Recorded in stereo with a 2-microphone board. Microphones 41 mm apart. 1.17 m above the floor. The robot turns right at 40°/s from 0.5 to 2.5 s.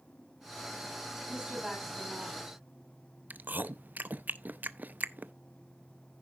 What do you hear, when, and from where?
1.3 s a woman speaking: 20° right, 4.5 m; by 2.6 s 30° left, 4.5 m
3.3 s chewing: 45° right (ahead or behind), 0.6 m